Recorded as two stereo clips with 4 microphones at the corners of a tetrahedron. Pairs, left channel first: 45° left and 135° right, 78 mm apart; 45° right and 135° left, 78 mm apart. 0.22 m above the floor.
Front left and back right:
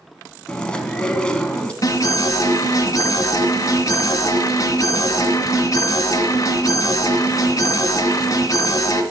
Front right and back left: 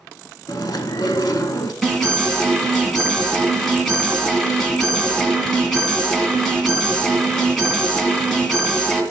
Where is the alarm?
40° left, 1.6 m.